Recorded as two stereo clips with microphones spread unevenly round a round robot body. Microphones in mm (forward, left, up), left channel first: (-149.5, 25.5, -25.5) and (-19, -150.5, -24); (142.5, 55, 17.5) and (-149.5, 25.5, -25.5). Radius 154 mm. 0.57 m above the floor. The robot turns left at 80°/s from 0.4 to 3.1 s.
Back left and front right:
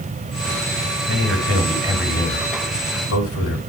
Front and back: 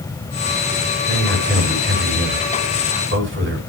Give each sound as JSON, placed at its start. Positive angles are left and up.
{"t": 1.1, "sound": "a man speaking", "azimuth_deg": -60, "distance_m": 4.0}